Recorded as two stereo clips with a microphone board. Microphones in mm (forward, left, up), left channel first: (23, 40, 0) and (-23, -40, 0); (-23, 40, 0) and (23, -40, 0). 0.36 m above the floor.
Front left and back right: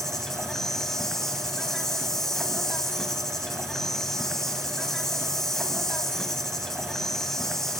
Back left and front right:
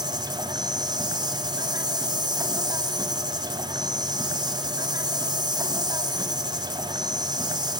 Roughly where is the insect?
Ahead right.